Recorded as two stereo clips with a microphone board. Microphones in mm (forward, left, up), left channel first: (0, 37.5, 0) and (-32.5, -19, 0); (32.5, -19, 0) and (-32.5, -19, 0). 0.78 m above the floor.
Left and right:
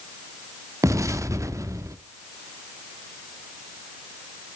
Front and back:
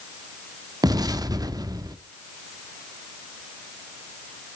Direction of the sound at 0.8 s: 160° right.